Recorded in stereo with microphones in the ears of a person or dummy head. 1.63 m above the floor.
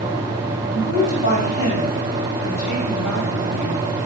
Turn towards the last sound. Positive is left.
turn(degrees=80)